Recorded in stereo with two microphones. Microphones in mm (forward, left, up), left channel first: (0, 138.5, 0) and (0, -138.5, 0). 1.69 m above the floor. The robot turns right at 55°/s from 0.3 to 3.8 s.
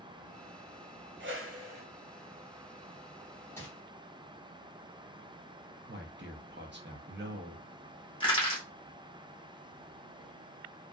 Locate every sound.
1.2 s a whoosh: 135° right, 0.7 m; by 1.9 s 100° right, 0.7 m
3.6 s crumpling: 10° left (ahead or behind), 1.1 m; by 3.7 s 5° left (ahead or behind), 1.1 m
5.9 s a man speaking: 40° right (ahead or behind), 0.6 m
8.2 s crushing: 20° left (ahead or behind), 1.2 m